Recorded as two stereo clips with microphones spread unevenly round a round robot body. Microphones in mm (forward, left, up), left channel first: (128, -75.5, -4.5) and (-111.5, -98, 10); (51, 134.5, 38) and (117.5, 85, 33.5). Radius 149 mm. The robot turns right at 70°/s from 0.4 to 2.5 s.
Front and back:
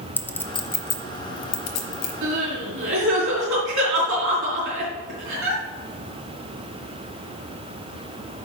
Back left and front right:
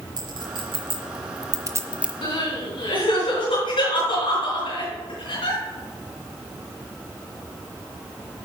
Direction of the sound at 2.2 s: 135° left.